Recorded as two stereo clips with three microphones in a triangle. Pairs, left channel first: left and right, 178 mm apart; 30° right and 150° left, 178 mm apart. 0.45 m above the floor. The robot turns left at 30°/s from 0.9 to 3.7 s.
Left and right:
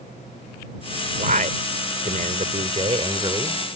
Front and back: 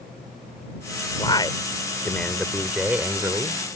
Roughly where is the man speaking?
Right.